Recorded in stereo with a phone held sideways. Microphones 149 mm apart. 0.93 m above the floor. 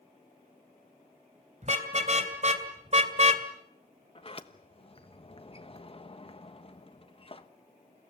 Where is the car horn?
50° right (ahead or behind), 3 m.